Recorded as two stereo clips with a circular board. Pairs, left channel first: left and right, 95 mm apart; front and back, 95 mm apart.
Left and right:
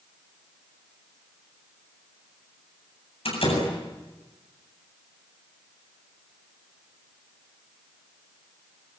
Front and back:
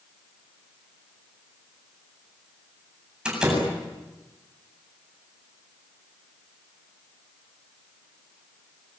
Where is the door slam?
100° left, 8 m.